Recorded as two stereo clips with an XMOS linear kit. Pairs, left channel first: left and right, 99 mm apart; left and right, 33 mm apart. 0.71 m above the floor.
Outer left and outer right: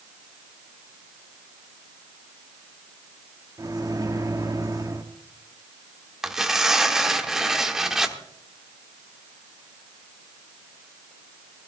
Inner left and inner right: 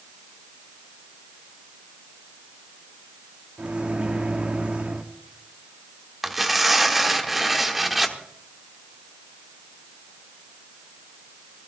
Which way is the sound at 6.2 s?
5° right (ahead or behind).